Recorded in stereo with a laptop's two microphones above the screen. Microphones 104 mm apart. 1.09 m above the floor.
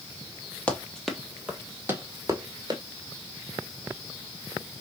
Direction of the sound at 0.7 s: 10° left (ahead or behind).